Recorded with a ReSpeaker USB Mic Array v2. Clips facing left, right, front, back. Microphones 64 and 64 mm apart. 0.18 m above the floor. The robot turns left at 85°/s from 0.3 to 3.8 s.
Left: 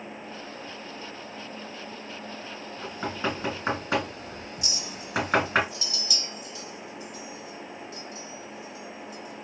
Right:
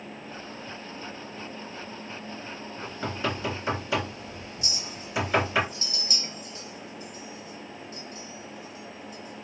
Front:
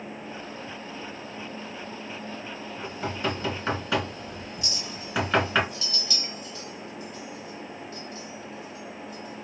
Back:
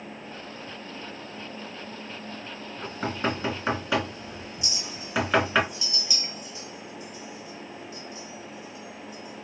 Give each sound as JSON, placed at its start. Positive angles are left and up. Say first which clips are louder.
{"t": 2.8, "sound": "knocking", "louder": "left 1 dB, back 2 dB", "azimuth_deg": 180, "distance_m": 2.0}
{"t": 4.6, "sound": "a clink", "louder": "left 1 dB, front 1 dB", "azimuth_deg": -115, "distance_m": 0.8}